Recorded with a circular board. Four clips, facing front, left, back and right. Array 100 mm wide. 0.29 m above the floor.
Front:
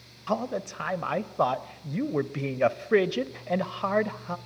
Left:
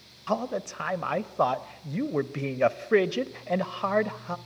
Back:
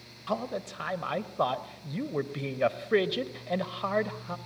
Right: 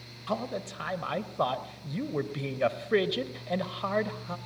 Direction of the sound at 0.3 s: 55° left.